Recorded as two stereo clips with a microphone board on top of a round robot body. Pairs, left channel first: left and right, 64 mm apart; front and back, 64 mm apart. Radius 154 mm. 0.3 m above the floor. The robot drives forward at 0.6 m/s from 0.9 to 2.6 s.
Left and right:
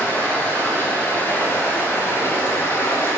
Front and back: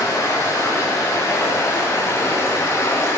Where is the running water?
35° left, 5.5 m; by 3.2 s 40° left, 5 m.